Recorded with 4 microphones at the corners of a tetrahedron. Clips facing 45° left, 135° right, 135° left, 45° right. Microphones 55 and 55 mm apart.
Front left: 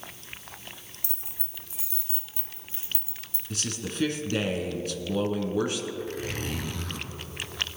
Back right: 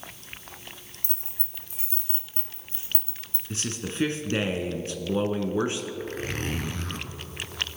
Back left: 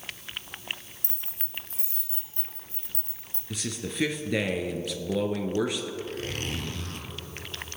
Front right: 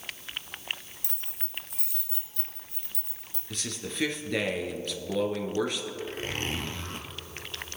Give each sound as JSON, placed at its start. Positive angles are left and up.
{"t": 1.0, "sound": "keys jangling", "azimuth_deg": 180, "distance_m": 2.0}
{"t": 3.5, "sound": "a man speaking", "azimuth_deg": -145, "distance_m": 1.2}
{"t": 6.0, "sound": "a zipper", "azimuth_deg": -100, "distance_m": 1.2}